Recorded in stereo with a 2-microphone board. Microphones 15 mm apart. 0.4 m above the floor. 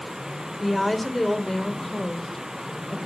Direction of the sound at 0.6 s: Centre (ahead or behind).